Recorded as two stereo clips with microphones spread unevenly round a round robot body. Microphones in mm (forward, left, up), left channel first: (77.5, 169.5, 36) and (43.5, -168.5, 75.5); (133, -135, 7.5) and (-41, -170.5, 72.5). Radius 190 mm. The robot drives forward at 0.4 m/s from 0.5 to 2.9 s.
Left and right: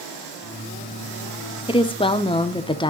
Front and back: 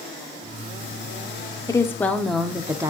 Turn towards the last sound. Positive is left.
turn(degrees=90)